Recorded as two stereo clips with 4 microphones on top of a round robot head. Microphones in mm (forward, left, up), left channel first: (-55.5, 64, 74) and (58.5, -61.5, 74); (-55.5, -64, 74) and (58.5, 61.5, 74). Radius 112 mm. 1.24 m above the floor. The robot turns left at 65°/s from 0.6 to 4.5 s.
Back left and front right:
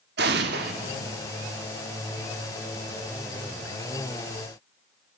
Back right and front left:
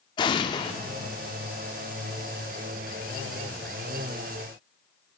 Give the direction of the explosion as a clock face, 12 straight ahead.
2 o'clock.